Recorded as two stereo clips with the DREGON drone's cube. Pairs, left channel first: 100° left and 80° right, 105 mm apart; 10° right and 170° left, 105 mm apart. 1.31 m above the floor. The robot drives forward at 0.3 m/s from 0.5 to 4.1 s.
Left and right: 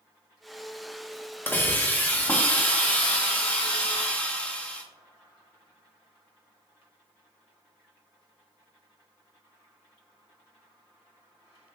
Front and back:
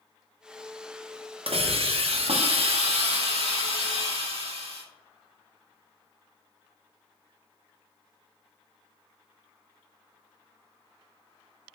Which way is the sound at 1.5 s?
170° left.